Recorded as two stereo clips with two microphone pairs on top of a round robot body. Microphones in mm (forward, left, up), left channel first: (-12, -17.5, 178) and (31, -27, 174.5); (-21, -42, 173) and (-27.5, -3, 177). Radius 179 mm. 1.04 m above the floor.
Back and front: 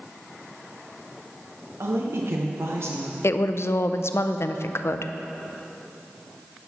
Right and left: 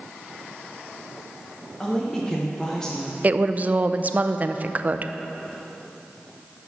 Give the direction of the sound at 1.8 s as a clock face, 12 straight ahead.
12 o'clock.